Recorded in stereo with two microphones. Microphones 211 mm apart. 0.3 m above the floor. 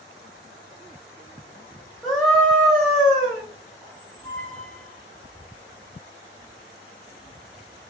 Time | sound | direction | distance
2.0 | a scream | centre (ahead or behind) | 1.6 m
3.8 | a squeak | 15° left (ahead or behind) | 1.9 m